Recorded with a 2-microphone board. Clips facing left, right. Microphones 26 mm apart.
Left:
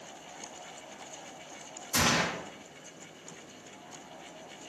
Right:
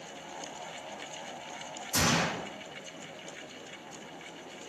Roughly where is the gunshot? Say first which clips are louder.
Left 1 dB; left.